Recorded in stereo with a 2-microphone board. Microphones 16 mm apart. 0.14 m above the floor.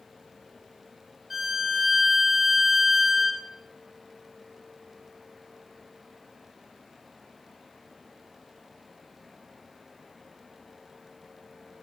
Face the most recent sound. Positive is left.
turn(degrees=-30)  # may be behind; listen again after turning